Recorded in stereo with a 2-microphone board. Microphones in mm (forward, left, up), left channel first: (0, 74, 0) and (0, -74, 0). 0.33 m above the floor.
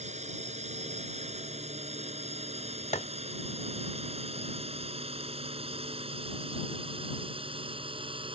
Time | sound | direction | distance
0.0 | a drone | 50° right (ahead or behind) | ?
2.9 | tapping | 50° left (ahead or behind) | ?